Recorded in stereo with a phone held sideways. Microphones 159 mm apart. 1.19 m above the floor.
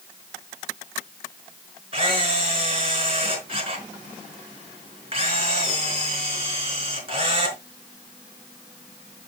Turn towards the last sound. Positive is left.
turn(degrees=-35)  # may be behind; listen again after turning